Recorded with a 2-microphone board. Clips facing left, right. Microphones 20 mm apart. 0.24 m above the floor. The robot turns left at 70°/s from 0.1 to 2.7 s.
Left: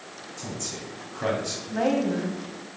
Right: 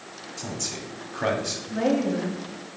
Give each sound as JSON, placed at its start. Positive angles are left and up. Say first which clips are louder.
{"t": 0.4, "sound": "a man speaking", "louder": "right 2 dB", "side_deg": -30, "distance_m": 1.4}
{"t": 1.7, "sound": "a woman speaking", "louder": "even", "azimuth_deg": 85, "distance_m": 1.8}